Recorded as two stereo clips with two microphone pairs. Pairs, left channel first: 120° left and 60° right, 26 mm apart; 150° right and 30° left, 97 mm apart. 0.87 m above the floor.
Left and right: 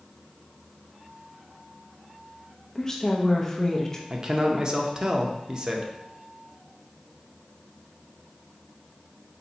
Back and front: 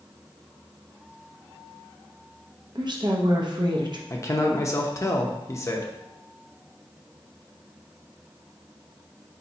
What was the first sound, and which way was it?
A woman speaking, 55° left.